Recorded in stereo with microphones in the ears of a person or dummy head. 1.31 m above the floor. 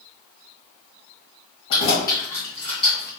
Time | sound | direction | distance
1.7 | keys jangling | 25° left (ahead or behind) | 1.0 m